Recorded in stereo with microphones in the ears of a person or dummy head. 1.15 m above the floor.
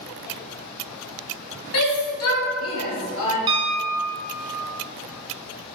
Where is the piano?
25° right (ahead or behind), 0.7 m.